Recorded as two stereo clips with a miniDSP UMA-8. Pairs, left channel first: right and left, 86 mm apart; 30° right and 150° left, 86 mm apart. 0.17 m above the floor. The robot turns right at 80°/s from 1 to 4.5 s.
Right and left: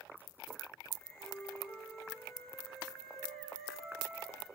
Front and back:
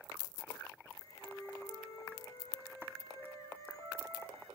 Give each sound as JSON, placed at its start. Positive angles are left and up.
{"t": 1.2, "sound": "a flute", "azimuth_deg": -80, "distance_m": 5.5}